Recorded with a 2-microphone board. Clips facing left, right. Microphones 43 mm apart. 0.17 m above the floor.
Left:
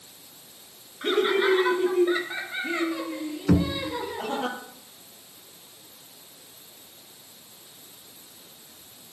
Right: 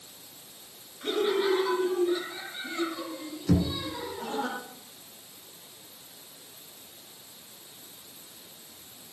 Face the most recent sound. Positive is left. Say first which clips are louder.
# left 4 dB
turn(degrees=45)  # may be behind; listen again after turning